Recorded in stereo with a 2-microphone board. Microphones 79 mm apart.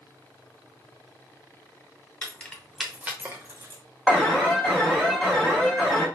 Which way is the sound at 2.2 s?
20° left (ahead or behind).